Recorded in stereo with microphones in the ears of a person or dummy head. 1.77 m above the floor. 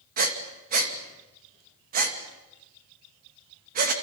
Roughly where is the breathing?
Right.